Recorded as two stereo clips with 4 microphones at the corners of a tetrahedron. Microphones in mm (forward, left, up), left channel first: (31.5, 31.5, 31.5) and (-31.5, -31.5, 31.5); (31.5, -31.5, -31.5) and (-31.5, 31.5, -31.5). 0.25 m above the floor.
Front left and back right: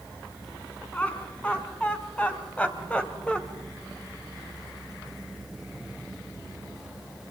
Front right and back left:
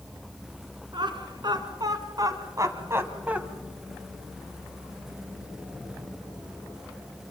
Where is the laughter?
120° left, 3.5 m; by 3.4 s 95° left, 1.6 m.